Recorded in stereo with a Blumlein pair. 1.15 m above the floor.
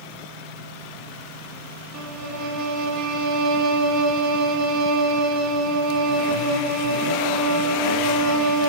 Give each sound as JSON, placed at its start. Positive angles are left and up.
{"t": 1.9, "sound": "a violin", "azimuth_deg": -40, "distance_m": 2.5}